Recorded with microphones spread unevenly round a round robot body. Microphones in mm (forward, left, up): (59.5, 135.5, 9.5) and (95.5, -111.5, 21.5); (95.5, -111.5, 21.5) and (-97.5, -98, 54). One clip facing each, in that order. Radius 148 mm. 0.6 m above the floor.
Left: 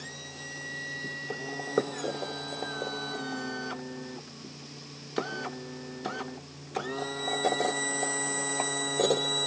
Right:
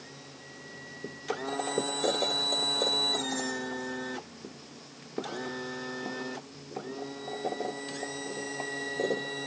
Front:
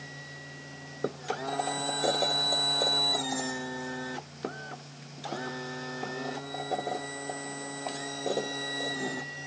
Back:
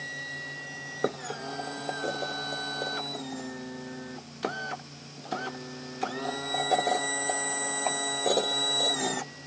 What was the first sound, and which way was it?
Only background noise.